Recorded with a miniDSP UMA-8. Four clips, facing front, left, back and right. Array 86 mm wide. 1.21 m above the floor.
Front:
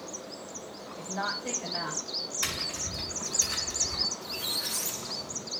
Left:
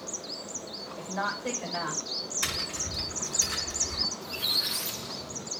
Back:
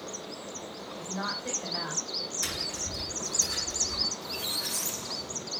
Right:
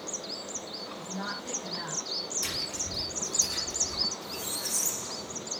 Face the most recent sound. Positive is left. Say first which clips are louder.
# left 1 dB, back 1 dB
turn(degrees=85)